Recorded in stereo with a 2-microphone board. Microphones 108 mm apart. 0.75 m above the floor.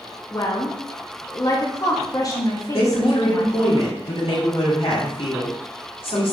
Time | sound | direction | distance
0.3 | a woman speaking | 35° left (ahead or behind) | 0.8 m
2.7 | a woman speaking | 60° left (ahead or behind) | 1.8 m